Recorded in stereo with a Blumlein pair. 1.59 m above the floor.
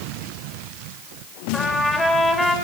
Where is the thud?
No thud in this recording.